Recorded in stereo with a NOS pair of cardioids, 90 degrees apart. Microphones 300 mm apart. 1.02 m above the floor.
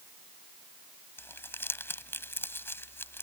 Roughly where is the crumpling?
Ahead.